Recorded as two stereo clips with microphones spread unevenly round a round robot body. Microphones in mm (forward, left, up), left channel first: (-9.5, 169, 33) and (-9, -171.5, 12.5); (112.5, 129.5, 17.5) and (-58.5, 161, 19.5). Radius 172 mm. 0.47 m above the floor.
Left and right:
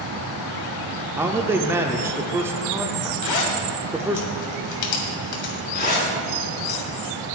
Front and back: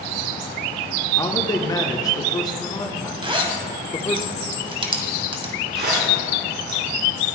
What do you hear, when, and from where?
1.2 s a man speaking: 25° right, 0.7 m
3.2 s a zipper: 110° left, 2 m
5.8 s a zipper: 155° left, 5.5 m